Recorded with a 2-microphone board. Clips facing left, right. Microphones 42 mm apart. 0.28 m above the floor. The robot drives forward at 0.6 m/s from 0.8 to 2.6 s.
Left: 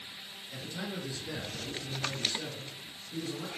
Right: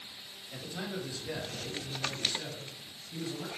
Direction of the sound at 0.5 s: 30° right (ahead or behind).